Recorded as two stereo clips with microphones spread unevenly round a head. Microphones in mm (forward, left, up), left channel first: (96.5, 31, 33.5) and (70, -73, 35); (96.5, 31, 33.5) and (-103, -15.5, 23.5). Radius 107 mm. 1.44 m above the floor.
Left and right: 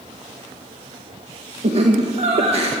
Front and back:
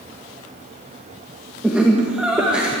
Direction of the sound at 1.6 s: 80° right.